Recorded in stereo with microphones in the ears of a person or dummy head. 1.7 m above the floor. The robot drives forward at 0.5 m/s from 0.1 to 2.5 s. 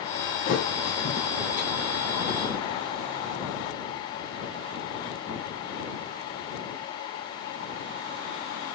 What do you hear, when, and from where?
0.5 s a thud: 55° left (ahead or behind), 6.5 m; by 1.7 s 50° left (ahead or behind), 7 m